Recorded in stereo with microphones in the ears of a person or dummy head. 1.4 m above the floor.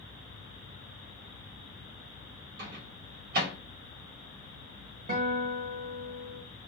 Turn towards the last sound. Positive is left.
turn(degrees=-35)  # may be behind; listen again after turning